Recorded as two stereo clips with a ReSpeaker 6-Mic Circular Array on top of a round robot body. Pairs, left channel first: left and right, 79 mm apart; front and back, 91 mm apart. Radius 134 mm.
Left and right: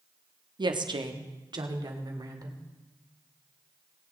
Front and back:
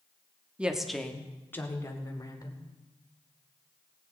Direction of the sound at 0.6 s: 105° right.